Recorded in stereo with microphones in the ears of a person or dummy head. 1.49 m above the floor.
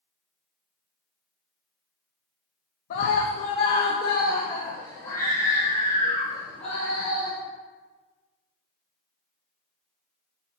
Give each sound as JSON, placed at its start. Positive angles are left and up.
{"t": 2.9, "sound": "a scream", "side_deg": 50, "distance_m": 1.1}